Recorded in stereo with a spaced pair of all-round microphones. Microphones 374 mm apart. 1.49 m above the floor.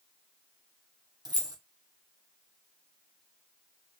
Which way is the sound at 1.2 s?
10° right (ahead or behind).